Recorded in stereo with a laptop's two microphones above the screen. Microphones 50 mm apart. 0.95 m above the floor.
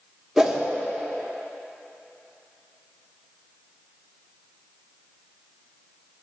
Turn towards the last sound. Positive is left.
turn(degrees=-10)  # may be behind; listen again after turning